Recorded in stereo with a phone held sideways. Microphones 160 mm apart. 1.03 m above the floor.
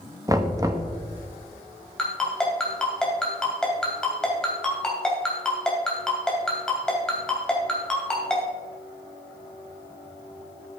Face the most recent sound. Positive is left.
turn(degrees=5)  # may be behind; listen again after turning